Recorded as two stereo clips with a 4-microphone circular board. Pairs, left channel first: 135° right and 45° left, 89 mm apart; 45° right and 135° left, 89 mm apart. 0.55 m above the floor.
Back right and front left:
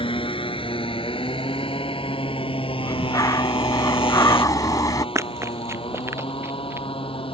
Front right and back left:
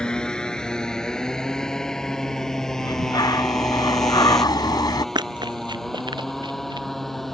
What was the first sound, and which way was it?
A motorcycle, 125° right.